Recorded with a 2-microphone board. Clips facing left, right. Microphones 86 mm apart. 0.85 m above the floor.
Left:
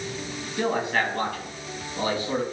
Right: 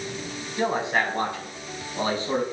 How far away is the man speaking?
About 5.5 m.